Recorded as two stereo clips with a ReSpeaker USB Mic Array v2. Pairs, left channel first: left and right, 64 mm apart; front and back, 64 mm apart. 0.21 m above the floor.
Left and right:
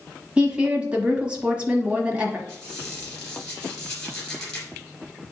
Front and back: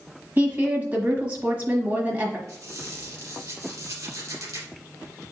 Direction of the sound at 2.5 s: 165° left.